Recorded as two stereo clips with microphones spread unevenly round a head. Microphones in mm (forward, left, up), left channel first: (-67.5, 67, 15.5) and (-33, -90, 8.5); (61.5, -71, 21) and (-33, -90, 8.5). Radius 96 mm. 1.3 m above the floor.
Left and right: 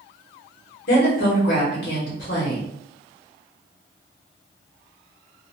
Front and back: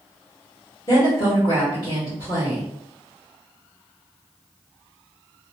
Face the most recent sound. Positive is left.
turn(degrees=80)